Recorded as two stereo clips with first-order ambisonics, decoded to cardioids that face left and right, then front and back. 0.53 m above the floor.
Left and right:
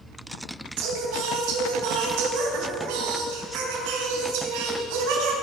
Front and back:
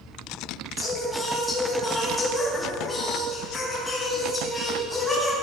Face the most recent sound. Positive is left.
turn(degrees=-75)